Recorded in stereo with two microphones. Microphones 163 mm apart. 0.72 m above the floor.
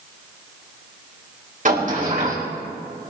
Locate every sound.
1.6 s a sliding door: 50° right (ahead or behind), 4 m